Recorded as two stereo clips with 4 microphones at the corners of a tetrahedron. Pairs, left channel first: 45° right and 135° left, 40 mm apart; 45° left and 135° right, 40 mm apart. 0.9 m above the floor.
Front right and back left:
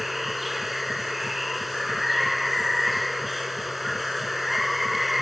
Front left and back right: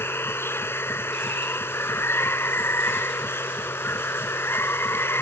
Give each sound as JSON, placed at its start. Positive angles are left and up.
{"t": 0.0, "sound": "running water", "azimuth_deg": 45}